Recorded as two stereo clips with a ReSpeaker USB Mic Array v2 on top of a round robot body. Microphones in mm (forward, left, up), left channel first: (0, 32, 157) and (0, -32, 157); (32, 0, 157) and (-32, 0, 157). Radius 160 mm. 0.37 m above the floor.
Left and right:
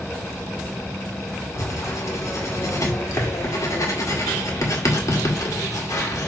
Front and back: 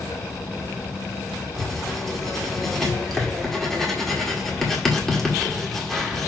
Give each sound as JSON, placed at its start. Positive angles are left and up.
{"t": 1.6, "sound": "writing", "azimuth_deg": 85, "distance_m": 2.0}